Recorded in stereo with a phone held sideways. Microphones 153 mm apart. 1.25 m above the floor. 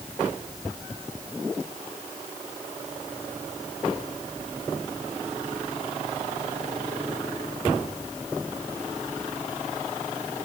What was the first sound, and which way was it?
Only background noise.